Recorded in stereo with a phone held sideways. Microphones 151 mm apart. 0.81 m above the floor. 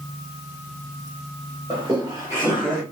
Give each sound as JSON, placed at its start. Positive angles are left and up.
{"t": 1.7, "sound": "laughter", "side_deg": -25, "distance_m": 1.4}